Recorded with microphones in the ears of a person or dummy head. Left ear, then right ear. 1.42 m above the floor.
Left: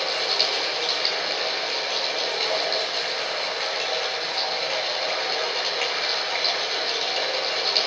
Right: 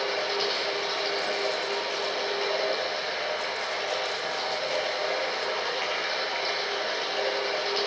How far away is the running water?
About 9 m.